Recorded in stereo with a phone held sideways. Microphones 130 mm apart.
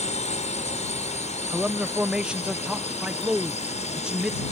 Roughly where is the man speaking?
Centre.